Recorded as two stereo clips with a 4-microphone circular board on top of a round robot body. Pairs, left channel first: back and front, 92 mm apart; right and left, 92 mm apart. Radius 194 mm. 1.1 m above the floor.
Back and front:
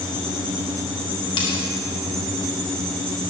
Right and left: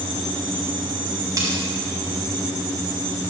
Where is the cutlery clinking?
145° left, 0.9 m.